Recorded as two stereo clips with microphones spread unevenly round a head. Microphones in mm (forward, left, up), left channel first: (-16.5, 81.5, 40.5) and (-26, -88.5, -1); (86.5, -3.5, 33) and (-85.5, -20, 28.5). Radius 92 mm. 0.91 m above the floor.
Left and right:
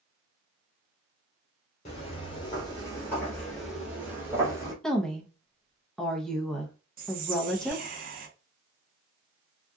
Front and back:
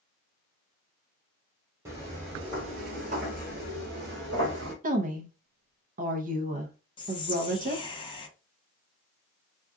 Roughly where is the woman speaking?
Behind.